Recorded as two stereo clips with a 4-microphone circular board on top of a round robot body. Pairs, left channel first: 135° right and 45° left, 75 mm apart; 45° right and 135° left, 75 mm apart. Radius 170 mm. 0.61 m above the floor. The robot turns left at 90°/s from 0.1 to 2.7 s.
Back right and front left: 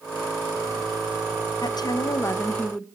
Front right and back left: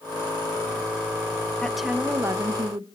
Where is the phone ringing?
I don't hear a phone ringing.